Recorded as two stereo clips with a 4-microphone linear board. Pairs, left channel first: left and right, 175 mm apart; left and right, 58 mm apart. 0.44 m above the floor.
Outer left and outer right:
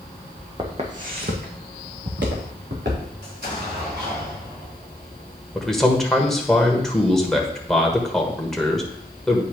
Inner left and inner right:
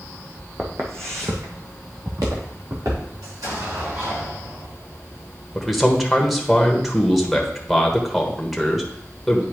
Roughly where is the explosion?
Right.